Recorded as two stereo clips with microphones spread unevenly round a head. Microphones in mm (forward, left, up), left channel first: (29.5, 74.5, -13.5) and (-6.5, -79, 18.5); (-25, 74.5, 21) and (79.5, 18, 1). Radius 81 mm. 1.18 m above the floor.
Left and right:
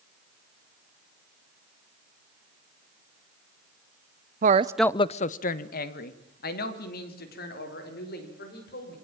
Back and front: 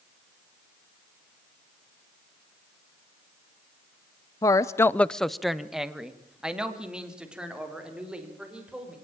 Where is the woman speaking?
140° right, 0.7 m; by 8.9 s 50° left, 6 m.